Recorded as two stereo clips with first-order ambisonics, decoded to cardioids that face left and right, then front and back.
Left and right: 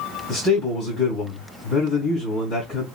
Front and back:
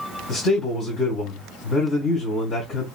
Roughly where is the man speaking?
Ahead left.